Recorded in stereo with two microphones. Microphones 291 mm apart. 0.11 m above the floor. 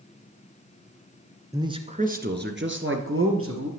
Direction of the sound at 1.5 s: 10° right (ahead or behind).